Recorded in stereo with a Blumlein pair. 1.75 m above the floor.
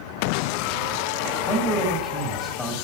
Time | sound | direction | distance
1.5 | a man speaking | 10° left | 2.5 m